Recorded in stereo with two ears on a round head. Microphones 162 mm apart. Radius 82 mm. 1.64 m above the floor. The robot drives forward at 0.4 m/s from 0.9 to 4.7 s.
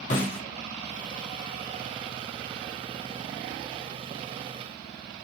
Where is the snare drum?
45° left (ahead or behind), 3 m.